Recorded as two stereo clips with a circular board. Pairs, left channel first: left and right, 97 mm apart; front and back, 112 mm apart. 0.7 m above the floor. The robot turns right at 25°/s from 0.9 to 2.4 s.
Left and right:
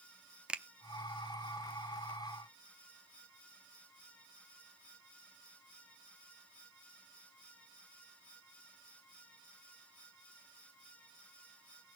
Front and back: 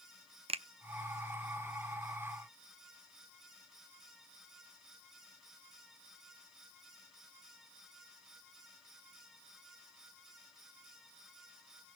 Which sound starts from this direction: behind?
A finger snap, at 0.5 s.